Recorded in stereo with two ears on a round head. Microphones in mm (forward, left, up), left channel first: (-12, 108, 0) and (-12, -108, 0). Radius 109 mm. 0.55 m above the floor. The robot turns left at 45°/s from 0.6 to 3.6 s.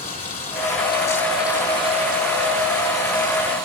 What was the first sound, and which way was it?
Running water, 35° left.